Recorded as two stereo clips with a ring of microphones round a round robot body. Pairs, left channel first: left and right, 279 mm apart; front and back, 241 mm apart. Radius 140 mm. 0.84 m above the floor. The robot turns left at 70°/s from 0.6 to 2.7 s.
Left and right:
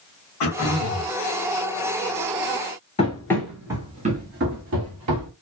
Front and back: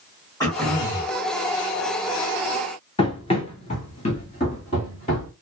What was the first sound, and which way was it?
Throat clearing, 75° left.